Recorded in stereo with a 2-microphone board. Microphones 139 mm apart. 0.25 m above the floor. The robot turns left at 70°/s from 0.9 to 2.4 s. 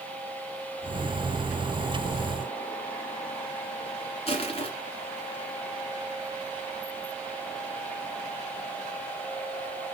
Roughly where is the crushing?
Left.